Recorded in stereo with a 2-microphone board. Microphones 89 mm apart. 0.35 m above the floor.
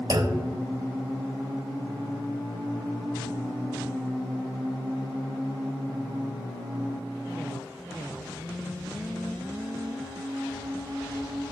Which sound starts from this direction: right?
A clunk, at 0.1 s.